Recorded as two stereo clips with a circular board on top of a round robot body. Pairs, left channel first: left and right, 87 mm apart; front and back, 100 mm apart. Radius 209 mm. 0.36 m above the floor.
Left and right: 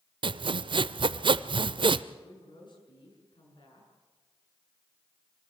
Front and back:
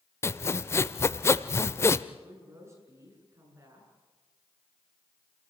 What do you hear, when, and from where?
0.2 s sawing: 65° right, 0.5 m
2.2 s a woman speaking: 115° left, 8 m